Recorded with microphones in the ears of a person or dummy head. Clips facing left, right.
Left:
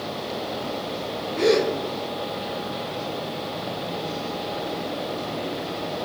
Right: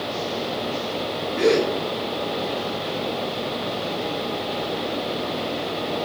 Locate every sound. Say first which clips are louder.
1.4 s a gasp: right 1 dB; 10° right (ahead or behind), 3 m